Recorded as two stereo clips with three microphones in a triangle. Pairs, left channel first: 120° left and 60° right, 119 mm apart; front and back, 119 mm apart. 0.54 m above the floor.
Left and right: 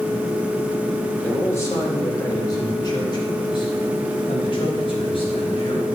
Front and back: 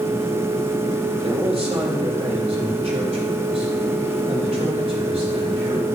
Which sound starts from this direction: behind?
A man speaking, at 1.2 s.